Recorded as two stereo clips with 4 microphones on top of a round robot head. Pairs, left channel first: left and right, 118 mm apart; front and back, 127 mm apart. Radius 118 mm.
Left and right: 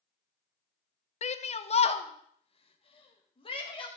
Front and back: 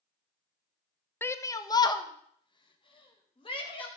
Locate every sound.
1.2 s a shout: 75° left, 0.8 m; by 3.9 s 45° left, 3 m